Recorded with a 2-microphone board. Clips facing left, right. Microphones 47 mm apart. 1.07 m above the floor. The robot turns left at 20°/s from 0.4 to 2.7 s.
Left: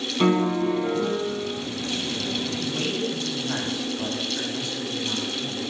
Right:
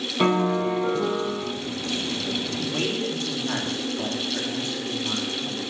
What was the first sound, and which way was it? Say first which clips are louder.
A piano: even; 20° right (ahead or behind).